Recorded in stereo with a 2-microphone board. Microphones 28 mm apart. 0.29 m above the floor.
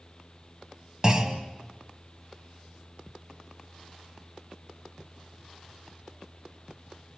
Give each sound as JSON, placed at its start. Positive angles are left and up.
{"t": 1.0, "sound": "a clunk", "side_deg": -25, "distance_m": 1.4}